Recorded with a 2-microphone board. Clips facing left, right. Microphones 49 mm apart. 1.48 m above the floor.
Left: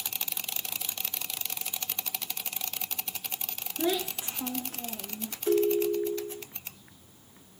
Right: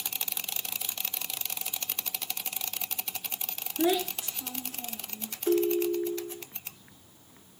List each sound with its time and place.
3.8 s a child speaking: 15° right (ahead or behind), 0.7 m; by 5.4 s 60° left (ahead or behind), 1.5 m
5.5 s a ringtone: 5° right (ahead or behind), 0.6 m